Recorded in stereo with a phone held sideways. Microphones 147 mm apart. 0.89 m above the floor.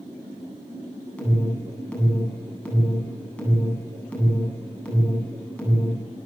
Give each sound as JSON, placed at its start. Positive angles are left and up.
{"t": 1.2, "sound": "an alarm", "side_deg": 10, "distance_m": 9.5}